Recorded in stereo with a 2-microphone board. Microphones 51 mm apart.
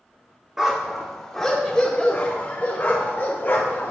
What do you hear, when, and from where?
0.6 s a dog barking: 10° right (ahead or behind), 1.5 m; by 3.9 s 35° left (ahead or behind), 2.5 m